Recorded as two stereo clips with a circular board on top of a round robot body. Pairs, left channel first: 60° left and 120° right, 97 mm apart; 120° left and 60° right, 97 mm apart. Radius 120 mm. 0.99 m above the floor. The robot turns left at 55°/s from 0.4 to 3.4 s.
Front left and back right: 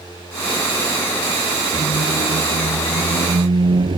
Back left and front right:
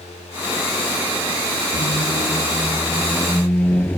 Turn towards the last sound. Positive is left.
turn(degrees=-165)